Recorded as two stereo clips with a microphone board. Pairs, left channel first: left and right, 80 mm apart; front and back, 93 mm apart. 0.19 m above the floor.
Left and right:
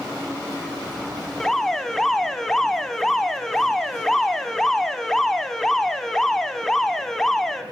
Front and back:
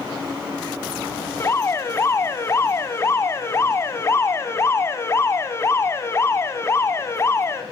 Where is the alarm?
10° left, 1.1 m.